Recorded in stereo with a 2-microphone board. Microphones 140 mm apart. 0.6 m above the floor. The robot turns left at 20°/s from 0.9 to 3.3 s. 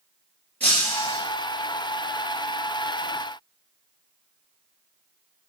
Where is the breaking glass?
10° left (ahead or behind), 4 m; by 1.2 s 15° left (ahead or behind), 4 m.